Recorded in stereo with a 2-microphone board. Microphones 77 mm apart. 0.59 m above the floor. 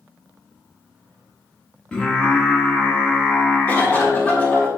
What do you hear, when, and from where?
1.9 s singing: 15° left (ahead or behind), 1.5 m
3.7 s a cough: 20° left (ahead or behind), 1.7 m